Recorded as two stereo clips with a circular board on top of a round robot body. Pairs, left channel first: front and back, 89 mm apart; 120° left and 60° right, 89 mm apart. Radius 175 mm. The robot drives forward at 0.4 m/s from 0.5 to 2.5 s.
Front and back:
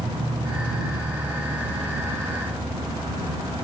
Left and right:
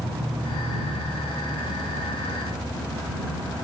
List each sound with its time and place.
0.0 s an insect: 155° right, 1.2 m; by 3.6 s 165° right, 2.0 m